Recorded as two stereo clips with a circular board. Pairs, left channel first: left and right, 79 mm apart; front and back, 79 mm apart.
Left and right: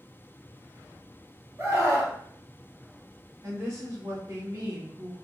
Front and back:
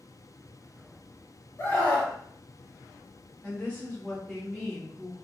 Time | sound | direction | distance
1.6 | a scream | 45° right | 1.9 m
3.4 | a woman speaking | 65° right | 1.3 m